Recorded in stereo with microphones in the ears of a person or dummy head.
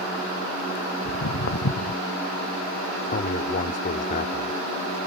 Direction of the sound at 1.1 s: 75° left (ahead or behind).